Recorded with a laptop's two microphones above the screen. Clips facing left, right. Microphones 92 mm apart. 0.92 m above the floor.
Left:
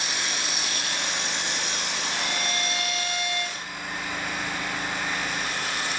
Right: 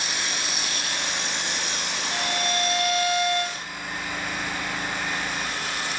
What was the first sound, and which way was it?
A violin, 50° right (ahead or behind).